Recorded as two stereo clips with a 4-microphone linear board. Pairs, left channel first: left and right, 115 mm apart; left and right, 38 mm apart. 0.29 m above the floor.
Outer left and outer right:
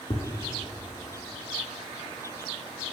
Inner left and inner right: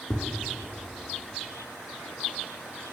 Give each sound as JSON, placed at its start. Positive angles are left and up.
{"t": 0.1, "sound": "tapping", "side_deg": 45, "distance_m": 0.7}